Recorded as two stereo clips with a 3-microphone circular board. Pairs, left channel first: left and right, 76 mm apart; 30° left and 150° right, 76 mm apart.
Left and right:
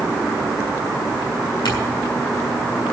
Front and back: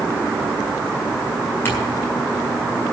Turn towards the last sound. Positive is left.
turn(degrees=90)